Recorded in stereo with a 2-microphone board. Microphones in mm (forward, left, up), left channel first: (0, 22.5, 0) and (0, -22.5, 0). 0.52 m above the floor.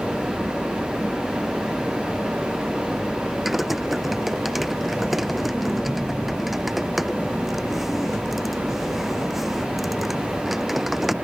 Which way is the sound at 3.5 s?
Centre (ahead or behind).